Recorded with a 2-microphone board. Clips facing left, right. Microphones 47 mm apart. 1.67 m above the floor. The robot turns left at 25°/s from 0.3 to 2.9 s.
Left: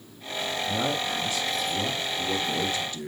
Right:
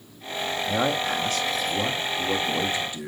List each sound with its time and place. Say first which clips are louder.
0.7 s a man speaking: right 5 dB; 105° right, 1.2 m; by 3.1 s 165° right, 1.2 m